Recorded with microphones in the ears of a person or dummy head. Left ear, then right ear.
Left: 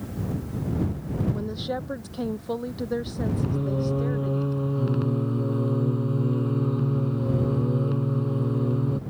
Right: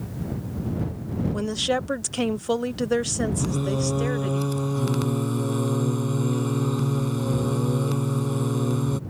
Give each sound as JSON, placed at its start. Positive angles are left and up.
{"t": 1.3, "sound": "a woman speaking", "side_deg": -70}
{"t": 3.4, "sound": "singing", "side_deg": -75}